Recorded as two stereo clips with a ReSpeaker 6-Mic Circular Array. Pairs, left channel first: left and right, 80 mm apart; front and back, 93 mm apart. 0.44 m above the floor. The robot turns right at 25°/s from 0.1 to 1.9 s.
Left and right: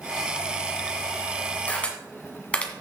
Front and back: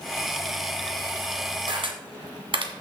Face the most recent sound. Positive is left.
turn(degrees=165)